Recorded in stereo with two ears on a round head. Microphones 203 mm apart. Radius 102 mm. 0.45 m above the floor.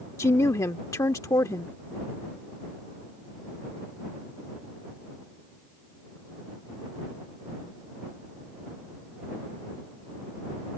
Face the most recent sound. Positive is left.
turn(degrees=15)  # may be behind; listen again after turning